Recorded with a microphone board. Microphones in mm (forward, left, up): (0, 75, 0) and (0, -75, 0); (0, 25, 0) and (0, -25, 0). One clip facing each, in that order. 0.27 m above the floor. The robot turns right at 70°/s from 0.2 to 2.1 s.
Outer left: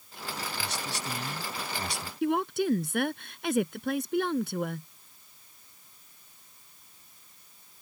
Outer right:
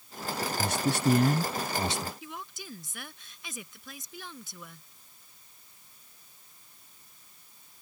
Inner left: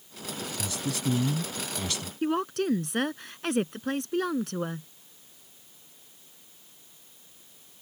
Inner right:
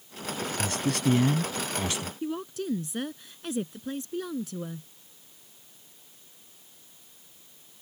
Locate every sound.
0.6 s a man speaking: 120° right; by 2.1 s 15° right
2.2 s a woman speaking: 65° left (ahead or behind)